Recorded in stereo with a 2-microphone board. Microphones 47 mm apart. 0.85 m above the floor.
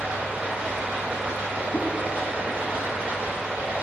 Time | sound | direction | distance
0.0 | running water | 25° right (ahead or behind) | 2 m
1.7 | a whoosh | 40° left (ahead or behind) | 0.7 m